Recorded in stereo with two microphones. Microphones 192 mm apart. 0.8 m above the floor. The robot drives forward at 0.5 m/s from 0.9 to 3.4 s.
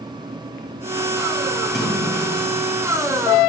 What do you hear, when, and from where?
1.6 s a splash: centre (ahead or behind), 5.5 m